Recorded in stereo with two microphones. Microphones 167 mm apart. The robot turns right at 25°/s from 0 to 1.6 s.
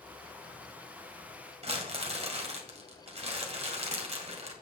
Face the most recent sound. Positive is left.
turn(degrees=-40)  # may be behind; listen again after turning